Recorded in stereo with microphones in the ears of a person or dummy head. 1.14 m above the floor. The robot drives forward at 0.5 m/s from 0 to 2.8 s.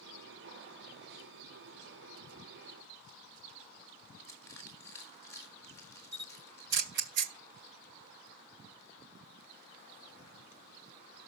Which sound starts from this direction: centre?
Crushing, at 4.2 s.